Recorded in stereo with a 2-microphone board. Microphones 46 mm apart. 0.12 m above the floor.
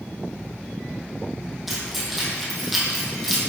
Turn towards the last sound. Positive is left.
turn(degrees=-5)  # may be behind; listen again after turning